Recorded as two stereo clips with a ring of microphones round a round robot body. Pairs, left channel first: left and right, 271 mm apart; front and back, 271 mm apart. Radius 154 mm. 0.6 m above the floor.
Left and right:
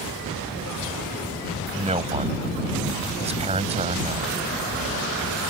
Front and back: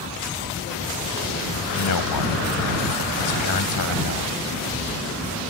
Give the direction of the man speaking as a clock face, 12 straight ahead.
1 o'clock.